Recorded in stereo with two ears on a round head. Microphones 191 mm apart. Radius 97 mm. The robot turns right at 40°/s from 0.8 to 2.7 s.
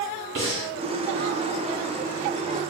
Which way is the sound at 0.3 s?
60° right (ahead or behind).